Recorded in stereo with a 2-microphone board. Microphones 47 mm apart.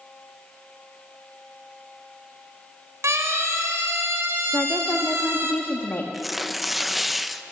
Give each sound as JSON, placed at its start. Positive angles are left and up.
{"t": 3.0, "sound": "a siren", "side_deg": -80, "distance_m": 4.5}
{"t": 4.5, "sound": "a woman speaking", "side_deg": 55, "distance_m": 1.4}
{"t": 6.1, "sound": "tearing paper", "side_deg": -5, "distance_m": 0.7}